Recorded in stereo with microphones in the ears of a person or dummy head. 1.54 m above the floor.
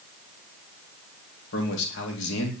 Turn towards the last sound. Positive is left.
turn(degrees=70)  # may be behind; listen again after turning